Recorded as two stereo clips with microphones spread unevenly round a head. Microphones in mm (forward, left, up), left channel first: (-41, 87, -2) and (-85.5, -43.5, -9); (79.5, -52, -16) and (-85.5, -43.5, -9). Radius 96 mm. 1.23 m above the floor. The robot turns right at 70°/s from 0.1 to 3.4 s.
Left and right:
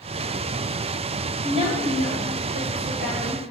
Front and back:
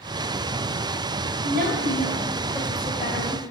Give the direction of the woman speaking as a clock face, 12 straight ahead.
6 o'clock.